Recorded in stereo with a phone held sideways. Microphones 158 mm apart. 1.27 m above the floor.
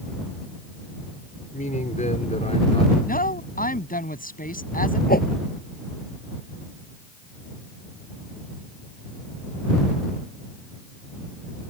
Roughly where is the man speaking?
Left.